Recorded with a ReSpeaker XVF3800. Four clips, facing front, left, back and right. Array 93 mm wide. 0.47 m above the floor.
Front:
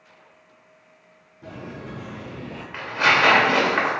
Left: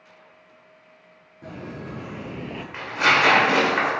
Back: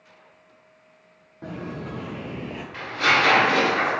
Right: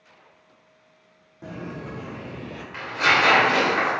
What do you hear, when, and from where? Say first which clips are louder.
1.4 s footsteps: right 1 dB, back 3 dB; 160° right, 1.1 m; by 2.6 s 110° left, 0.5 m
2.7 s tearing paper: left 1 dB, front 2 dB; 30° left, 0.9 m